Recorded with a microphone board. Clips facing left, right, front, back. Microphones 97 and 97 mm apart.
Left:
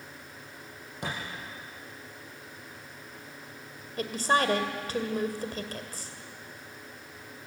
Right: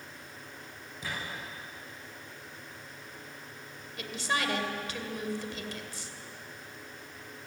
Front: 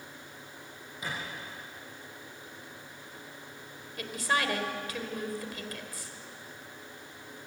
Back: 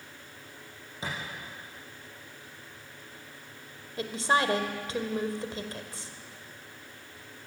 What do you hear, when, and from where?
1.0 s a thud: 115° left, 8 m
4.0 s a woman speaking: 125° left, 2 m